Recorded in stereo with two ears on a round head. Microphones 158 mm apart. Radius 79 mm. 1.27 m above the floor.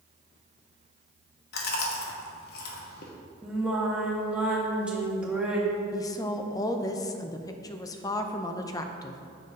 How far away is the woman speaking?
About 0.5 m.